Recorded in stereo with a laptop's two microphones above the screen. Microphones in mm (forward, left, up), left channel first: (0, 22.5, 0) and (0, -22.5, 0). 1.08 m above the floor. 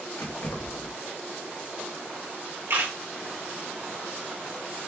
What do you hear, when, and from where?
0.2 s keys jangling: 85° left, 1.1 m
2.7 s a camera shutter: 80° right, 2.5 m